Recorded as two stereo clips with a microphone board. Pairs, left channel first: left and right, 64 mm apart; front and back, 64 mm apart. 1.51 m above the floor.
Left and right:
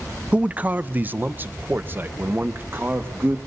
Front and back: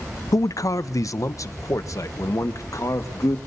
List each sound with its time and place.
0.3 s a man speaking: 20° right, 0.5 m; by 3.4 s 35° right, 2.5 m